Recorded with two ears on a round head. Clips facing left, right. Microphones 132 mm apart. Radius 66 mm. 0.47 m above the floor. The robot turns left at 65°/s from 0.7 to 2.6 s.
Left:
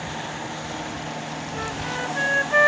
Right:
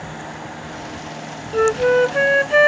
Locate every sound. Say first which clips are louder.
1.5 s a flute: right 19 dB; 75° right; by 2.7 s 145° right